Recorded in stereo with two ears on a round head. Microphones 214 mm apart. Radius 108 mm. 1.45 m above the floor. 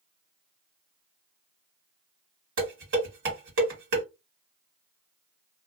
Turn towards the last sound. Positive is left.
turn(degrees=-55)  # may be behind; listen again after turning